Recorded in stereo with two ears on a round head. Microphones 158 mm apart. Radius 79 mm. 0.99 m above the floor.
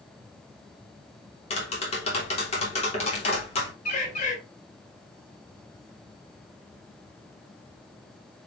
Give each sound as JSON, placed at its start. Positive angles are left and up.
{"t": 1.5, "sound": "tapping", "side_deg": 35, "distance_m": 3.0}
{"t": 3.9, "sound": "a bird", "side_deg": 45, "distance_m": 3.0}